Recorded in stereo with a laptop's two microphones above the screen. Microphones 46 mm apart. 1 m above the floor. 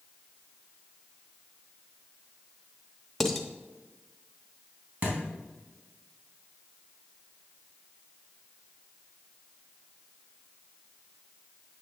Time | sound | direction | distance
3.2 | dishes clattering | 5° left (ahead or behind) | 0.9 m
5.0 | a thud | 35° right (ahead or behind) | 3.5 m